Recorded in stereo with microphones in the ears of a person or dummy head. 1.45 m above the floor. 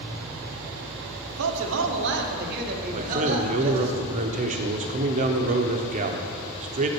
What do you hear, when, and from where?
1.3 s a man speaking: 85° right, 0.9 m; by 3.9 s 35° right (ahead or behind), 1.7 m
2.9 s a man speaking: 40° right (ahead or behind), 0.8 m